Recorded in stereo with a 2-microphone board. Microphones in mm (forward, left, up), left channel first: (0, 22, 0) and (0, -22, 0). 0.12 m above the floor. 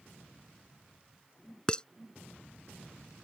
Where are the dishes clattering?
20° left (ahead or behind).